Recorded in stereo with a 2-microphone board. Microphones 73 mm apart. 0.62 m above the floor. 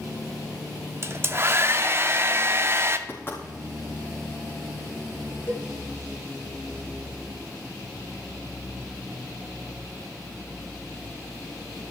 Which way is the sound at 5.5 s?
30° left (ahead or behind).